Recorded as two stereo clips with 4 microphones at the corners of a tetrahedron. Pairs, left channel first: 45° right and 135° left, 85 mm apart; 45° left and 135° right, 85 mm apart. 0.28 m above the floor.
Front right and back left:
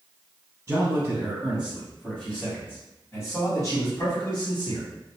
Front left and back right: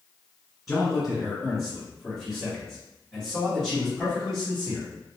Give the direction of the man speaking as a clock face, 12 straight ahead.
8 o'clock.